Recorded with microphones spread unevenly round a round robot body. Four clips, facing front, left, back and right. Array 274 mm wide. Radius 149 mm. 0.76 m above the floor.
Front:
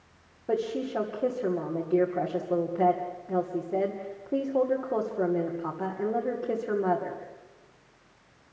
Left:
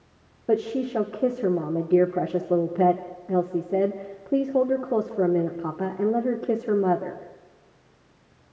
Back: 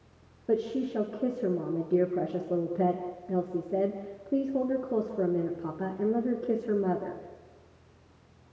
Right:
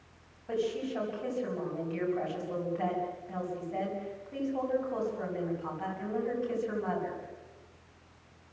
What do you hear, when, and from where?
0.5 s a woman speaking: 95° left, 2.5 m